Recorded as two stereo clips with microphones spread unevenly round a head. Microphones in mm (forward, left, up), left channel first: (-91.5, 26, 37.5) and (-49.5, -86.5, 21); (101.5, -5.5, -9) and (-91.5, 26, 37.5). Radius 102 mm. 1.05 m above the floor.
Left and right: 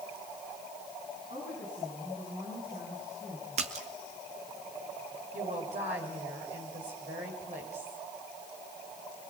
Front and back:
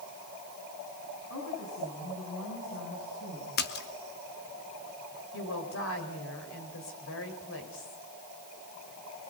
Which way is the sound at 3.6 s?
40° right.